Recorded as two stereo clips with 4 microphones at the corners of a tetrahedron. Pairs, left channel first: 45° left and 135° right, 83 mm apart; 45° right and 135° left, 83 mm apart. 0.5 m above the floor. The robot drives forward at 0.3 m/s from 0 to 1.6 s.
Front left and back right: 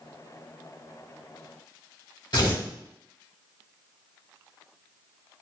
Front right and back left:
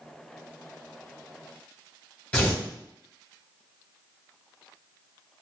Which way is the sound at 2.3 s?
30° left.